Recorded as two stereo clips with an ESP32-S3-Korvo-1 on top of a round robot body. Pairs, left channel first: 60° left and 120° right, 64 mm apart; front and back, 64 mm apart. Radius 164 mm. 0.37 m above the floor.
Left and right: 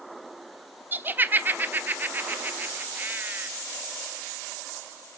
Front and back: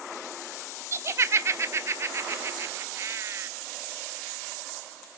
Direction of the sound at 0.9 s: 165° right.